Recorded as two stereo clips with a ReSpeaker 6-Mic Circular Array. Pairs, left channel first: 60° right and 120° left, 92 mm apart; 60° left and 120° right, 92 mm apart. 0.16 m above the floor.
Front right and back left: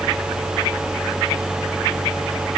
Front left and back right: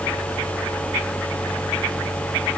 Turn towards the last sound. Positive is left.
No sound to turn to.